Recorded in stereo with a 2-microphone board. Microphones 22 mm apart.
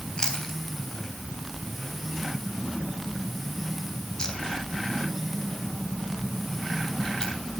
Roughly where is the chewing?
Left.